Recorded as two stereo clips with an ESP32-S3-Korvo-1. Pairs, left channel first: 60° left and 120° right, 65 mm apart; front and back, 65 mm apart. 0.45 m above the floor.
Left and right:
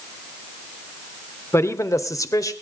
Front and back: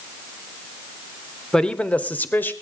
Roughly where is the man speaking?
Left.